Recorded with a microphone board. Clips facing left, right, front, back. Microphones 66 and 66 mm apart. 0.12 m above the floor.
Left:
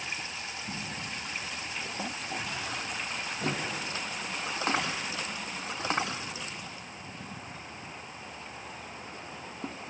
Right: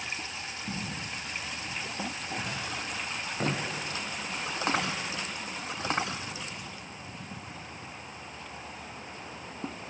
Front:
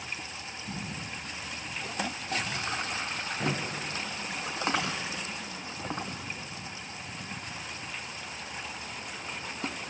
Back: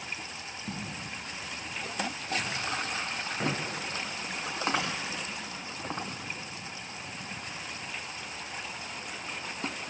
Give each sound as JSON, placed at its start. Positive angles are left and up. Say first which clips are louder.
{"t": 0.7, "sound": "footsteps", "louder": "right 3 dB, even", "azimuth_deg": -145, "distance_m": 3.5}